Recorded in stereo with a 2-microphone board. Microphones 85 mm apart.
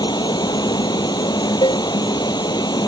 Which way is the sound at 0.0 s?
55° left (ahead or behind).